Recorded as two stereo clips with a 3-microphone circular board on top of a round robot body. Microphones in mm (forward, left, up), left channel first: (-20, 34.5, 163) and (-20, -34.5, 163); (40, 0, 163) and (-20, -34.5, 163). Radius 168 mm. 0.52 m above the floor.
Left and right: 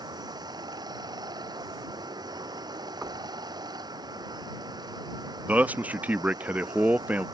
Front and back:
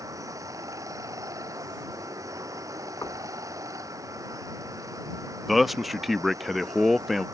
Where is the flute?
No flute in this recording.